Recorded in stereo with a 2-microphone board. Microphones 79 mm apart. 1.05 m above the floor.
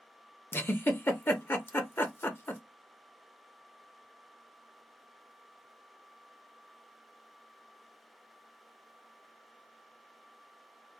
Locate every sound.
0.5 s a giggle: 25° left (ahead or behind), 0.6 m